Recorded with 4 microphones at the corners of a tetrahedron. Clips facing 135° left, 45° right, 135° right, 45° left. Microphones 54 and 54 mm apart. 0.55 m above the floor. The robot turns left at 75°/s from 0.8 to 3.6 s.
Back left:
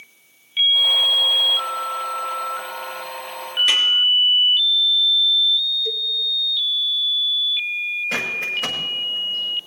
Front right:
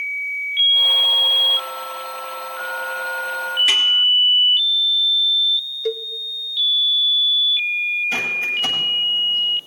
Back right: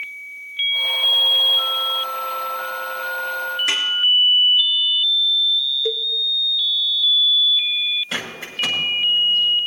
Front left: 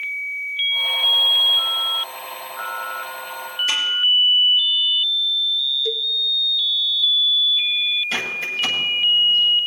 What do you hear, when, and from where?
3.7 s a snare drum: 130° right, 3.5 m
5.8 s a cowbell: 80° right, 0.9 m
8.1 s a bird: 160° left, 7 m